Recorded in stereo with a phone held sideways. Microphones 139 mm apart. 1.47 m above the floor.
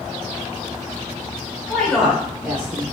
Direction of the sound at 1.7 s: 5° left (ahead or behind).